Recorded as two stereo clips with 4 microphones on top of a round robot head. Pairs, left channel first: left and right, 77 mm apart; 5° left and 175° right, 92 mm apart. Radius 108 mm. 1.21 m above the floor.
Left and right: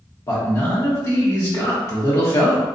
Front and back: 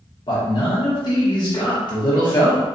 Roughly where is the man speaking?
Ahead left.